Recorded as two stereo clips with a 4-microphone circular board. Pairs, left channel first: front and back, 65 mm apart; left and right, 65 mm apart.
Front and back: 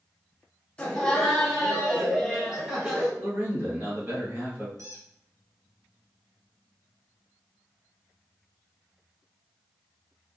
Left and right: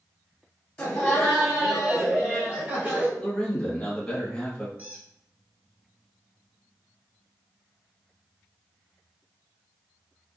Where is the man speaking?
150° left, 1.5 m.